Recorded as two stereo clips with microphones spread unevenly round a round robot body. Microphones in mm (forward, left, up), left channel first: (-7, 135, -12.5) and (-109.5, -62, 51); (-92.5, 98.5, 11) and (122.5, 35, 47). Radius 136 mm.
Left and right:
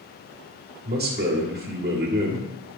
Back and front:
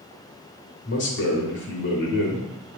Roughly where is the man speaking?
Behind.